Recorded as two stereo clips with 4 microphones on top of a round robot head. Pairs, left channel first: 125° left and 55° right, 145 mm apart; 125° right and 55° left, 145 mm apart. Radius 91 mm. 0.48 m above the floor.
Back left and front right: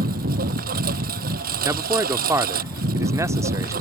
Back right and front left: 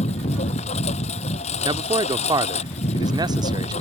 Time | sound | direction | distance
0.0 | a lawn mower | 80° right | ?
1.6 | a man speaking | 10° left | ?